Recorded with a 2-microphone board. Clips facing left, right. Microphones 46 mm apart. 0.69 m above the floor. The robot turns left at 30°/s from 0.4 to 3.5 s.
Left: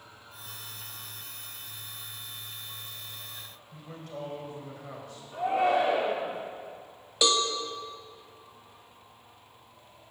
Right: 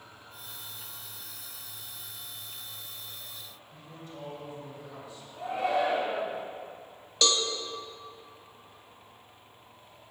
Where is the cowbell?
10° left (ahead or behind), 1.0 m.